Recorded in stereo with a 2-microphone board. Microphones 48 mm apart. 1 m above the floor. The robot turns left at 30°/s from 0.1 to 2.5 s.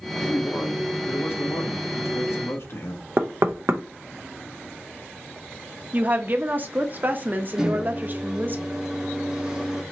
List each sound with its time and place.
0.2 s a man speaking: 155° left, 1.5 m; by 3.1 s 85° left, 1.5 m
3.2 s knocking: 60° right (ahead or behind), 0.6 m
5.9 s a woman speaking: 40° right (ahead or behind), 0.8 m
7.6 s a microwave: 15° right (ahead or behind), 1.4 m